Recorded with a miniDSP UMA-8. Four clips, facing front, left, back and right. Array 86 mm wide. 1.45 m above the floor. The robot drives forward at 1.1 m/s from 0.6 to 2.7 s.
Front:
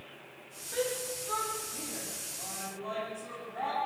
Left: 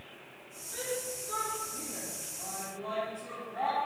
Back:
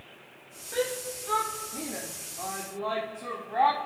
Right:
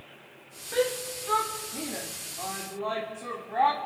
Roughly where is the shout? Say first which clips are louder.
Right 9 dB, back 3 dB; right.